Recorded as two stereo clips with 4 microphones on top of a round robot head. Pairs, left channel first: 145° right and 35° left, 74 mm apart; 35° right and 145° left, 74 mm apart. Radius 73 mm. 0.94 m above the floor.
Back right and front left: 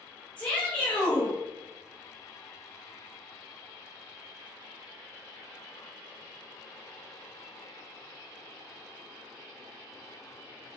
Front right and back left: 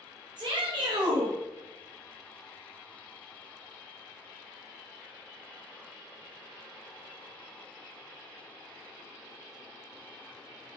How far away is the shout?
About 0.7 m.